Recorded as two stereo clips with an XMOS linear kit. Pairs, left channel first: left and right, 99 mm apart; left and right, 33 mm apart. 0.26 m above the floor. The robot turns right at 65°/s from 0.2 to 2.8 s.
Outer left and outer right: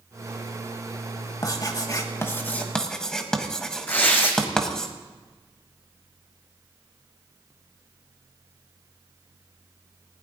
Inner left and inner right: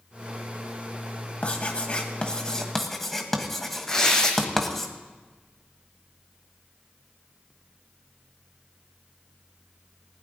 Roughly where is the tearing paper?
Left.